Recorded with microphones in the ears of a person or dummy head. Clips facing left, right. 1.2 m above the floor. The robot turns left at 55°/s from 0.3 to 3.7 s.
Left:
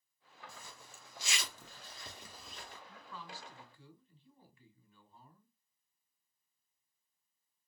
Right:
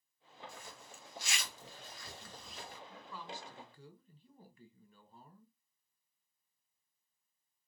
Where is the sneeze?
No sneeze in this recording.